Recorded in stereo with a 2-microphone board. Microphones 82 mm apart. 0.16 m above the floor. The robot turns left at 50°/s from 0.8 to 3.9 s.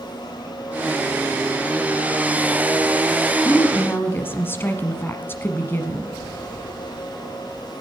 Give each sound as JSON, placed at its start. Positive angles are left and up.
{"t": 3.5, "sound": "a woman speaking", "side_deg": 25, "distance_m": 1.2}